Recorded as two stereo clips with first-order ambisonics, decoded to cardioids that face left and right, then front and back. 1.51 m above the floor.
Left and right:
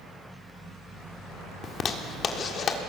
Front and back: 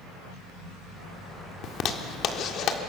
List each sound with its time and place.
1.6 s a zipper: 40° left, 1.5 m